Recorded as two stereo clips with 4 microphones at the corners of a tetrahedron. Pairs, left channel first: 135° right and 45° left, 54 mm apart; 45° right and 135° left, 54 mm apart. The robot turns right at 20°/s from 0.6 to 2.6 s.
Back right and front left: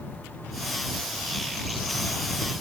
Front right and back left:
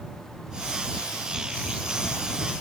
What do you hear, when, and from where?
Only background noise.